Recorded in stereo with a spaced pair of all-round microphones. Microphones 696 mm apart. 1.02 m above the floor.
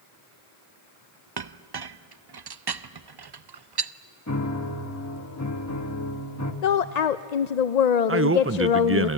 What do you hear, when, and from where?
1.4 s a clink: 40° right (ahead or behind), 0.5 m
4.3 s a piano: 25° left (ahead or behind), 1.4 m
6.6 s a woman speaking: 70° left (ahead or behind), 0.6 m
8.1 s a man speaking: 20° right (ahead or behind), 0.5 m